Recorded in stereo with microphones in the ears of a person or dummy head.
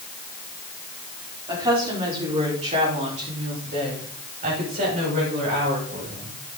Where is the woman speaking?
15° right (ahead or behind), 4 m; by 6.4 s 45° right (ahead or behind), 7 m.